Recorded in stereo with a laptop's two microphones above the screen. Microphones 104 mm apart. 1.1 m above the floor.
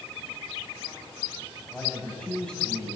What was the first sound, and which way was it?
A man speaking, 5° left (ahead or behind).